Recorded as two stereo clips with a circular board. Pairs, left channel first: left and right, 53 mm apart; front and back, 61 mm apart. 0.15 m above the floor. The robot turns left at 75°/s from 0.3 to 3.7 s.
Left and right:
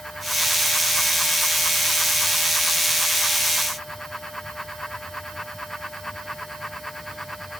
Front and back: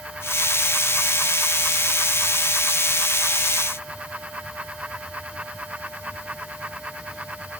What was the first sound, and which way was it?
Only background noise.